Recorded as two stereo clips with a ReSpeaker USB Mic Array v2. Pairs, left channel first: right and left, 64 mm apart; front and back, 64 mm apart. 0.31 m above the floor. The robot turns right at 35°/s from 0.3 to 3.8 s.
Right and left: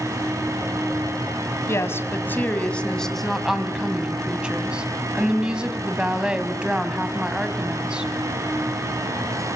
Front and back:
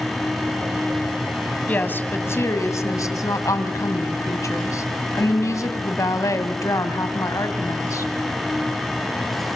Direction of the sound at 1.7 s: 60° right.